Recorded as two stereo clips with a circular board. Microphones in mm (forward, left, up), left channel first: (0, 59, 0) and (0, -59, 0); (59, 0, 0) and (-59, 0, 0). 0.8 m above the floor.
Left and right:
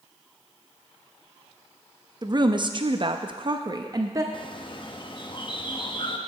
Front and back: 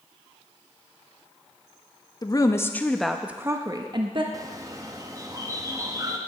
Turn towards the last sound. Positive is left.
turn(degrees=125)